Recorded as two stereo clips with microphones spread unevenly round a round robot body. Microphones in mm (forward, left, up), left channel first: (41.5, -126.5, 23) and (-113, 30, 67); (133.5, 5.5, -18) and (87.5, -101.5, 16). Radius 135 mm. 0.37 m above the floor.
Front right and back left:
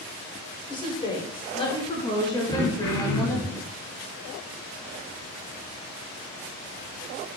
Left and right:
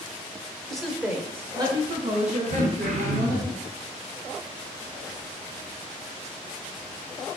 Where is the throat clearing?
110° right, 0.9 m.